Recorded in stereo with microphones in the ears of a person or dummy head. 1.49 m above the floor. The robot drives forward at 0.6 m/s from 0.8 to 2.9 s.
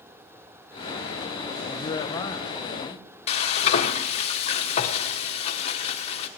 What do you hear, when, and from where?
1.6 s a man speaking: 30° left (ahead or behind), 0.5 m; by 3.1 s 15° left (ahead or behind), 1.2 m
3.3 s frying: 40° left (ahead or behind), 1.0 m